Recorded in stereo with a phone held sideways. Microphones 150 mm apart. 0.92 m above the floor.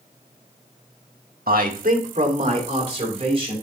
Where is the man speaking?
80° right, 1.2 m; by 3.5 s 40° right (ahead or behind), 4 m.